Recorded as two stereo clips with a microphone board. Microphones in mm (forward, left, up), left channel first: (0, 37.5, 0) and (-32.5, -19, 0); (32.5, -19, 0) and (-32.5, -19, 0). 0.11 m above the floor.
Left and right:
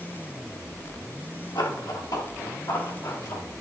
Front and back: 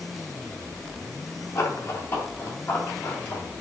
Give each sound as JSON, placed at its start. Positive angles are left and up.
{"t": 1.6, "sound": "running footsteps", "azimuth_deg": 55, "distance_m": 3.0}